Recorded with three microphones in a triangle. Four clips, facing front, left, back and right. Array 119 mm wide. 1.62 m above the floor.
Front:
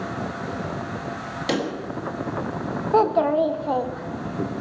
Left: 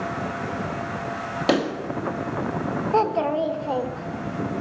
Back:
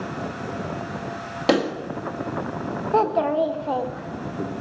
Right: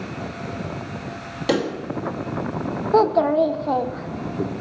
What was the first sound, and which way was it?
A pop, 150° left.